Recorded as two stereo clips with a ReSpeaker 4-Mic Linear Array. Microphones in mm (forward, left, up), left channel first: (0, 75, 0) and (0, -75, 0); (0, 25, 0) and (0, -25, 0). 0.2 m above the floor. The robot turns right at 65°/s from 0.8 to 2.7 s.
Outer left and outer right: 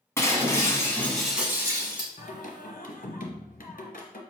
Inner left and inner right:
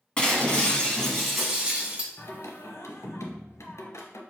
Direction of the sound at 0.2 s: 150° left.